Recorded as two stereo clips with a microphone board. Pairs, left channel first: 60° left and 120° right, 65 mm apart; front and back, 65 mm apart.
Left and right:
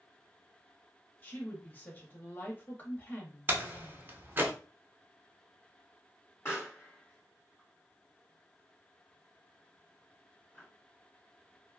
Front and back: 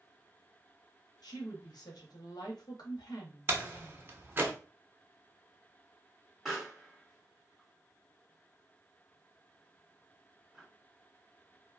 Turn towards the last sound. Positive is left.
turn(degrees=95)